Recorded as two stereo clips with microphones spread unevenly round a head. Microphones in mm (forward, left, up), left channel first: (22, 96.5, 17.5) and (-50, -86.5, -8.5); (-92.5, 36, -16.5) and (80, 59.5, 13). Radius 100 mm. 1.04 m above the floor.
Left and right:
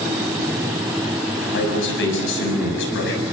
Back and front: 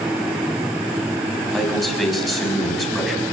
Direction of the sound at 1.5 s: 100° left.